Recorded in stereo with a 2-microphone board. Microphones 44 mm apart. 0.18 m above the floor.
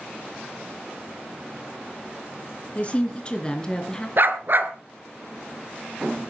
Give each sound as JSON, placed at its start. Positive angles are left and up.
{"t": 2.8, "sound": "a woman speaking", "side_deg": 30, "distance_m": 2.0}
{"t": 4.2, "sound": "a dog barking", "side_deg": -50, "distance_m": 1.1}